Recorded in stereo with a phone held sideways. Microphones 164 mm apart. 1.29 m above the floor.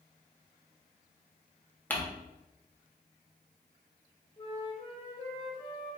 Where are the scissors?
No scissors in this recording.